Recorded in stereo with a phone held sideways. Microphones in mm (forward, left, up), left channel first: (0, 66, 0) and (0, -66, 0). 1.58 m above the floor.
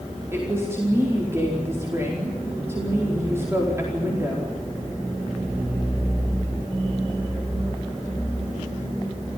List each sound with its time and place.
0.3 s a woman speaking: 20° right (ahead or behind), 4.5 m